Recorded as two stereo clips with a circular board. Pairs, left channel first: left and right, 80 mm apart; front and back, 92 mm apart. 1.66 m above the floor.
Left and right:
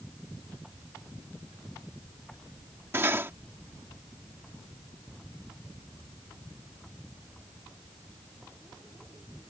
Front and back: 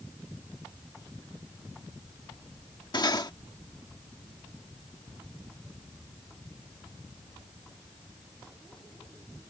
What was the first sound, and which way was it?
Cutlery clinking, 35° right.